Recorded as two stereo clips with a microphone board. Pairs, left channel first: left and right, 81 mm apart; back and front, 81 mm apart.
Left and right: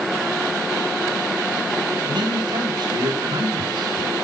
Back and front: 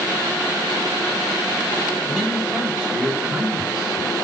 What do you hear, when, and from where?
2.0 s a man speaking: 70° right, 8.5 m; by 4.1 s 65° right, 9.5 m